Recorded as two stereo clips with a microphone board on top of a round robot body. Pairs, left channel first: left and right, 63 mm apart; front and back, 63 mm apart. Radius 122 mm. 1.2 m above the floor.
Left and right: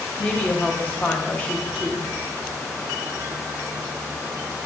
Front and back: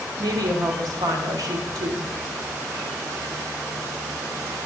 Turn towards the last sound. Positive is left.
turn(degrees=160)